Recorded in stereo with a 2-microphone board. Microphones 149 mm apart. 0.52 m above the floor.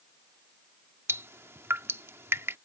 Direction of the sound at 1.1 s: 15° right (ahead or behind).